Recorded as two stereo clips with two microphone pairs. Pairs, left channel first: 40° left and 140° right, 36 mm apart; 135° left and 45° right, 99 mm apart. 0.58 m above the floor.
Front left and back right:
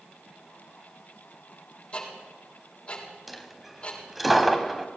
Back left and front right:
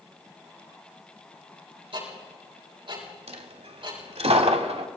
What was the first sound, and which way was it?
Ticking, 15° right.